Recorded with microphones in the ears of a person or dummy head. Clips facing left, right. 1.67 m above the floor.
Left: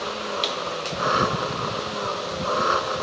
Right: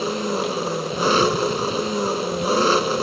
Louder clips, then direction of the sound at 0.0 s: Right 6 dB; 45° right (ahead or behind).